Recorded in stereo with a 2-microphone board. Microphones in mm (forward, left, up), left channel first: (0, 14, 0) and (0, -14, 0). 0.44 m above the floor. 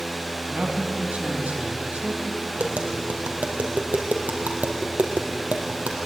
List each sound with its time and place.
0.5 s a man speaking: 60° right (ahead or behind), 4.5 m
2.6 s tapping: 85° right, 3 m